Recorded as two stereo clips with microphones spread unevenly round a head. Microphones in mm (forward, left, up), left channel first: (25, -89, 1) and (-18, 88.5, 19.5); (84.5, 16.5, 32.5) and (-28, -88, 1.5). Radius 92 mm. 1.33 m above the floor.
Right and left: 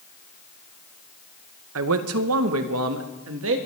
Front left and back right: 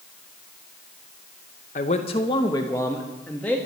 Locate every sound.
1.8 s a man speaking: 90° left, 0.8 m; by 3.6 s 125° left, 1.7 m